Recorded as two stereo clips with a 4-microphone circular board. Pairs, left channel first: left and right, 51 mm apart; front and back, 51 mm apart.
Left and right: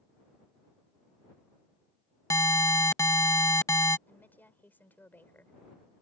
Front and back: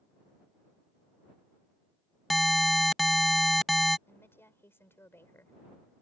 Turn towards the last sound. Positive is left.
turn(degrees=40)